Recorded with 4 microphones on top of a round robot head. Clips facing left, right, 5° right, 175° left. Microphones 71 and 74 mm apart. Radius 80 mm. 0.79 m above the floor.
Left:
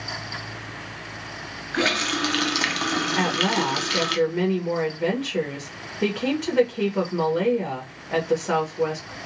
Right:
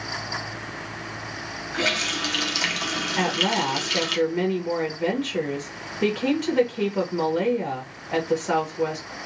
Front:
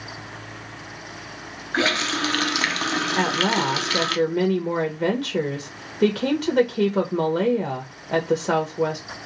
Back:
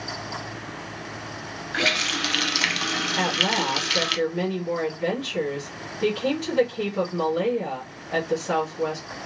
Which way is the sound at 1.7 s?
45° left.